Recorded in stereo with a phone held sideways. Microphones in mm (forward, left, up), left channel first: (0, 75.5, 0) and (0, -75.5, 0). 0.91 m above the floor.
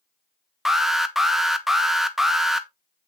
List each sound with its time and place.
0.7 s an alarm: centre (ahead or behind), 1.2 m